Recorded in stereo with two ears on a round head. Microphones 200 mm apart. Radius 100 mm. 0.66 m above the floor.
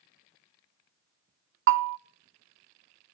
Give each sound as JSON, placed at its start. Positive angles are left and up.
{"t": 1.7, "sound": "a bell", "side_deg": -55, "distance_m": 0.7}